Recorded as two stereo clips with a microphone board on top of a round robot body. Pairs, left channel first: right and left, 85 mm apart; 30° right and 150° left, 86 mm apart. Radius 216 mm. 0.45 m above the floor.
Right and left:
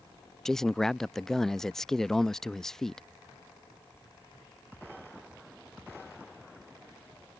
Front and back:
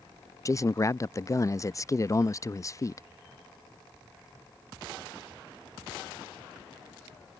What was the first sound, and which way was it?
A man speaking, 5° right.